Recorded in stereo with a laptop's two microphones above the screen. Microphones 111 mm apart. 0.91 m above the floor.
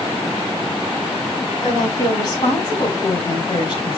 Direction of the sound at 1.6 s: 40° left (ahead or behind).